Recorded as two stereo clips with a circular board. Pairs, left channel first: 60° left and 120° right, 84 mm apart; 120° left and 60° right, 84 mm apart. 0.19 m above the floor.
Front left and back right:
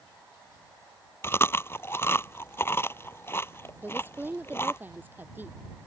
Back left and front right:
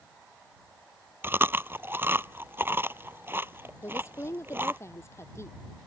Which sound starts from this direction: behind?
A woman speaking, at 3.8 s.